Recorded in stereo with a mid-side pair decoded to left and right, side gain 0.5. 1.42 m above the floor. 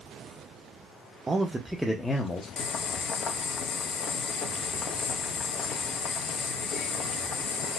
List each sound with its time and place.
1.3 s a man speaking: 30° right, 0.6 m; by 2.5 s 40° left, 0.7 m
2.6 s boiling: 60° left, 0.5 m